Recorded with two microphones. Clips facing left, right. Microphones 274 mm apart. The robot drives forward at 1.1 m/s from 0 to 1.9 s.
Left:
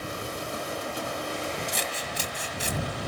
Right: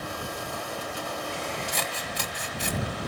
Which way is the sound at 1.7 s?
70° right (ahead or behind).